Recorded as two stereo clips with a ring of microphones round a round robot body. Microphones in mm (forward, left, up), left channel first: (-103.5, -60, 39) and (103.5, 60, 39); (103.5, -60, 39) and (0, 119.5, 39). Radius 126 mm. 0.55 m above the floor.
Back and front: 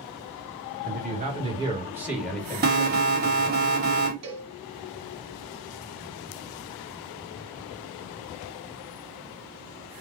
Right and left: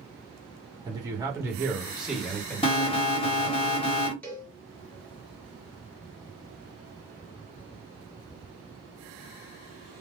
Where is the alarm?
5° right, 1.4 m.